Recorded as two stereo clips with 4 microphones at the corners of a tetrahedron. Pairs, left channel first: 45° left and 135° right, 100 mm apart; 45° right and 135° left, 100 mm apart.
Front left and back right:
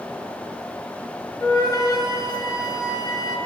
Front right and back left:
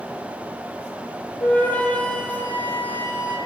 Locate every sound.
1.4 s a flute: 20° left, 1.0 m